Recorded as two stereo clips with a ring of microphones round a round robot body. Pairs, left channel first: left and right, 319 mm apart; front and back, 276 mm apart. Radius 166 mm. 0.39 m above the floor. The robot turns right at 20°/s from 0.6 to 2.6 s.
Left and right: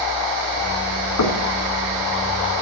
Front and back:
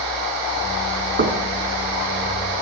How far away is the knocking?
About 4 m.